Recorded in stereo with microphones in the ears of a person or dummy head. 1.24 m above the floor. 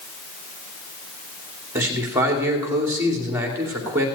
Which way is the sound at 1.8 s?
15° right (ahead or behind).